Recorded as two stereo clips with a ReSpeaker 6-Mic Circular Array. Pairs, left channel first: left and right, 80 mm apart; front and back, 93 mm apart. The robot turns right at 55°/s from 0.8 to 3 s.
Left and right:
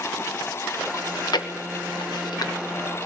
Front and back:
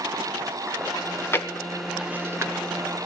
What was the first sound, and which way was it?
Chewing, 40° left.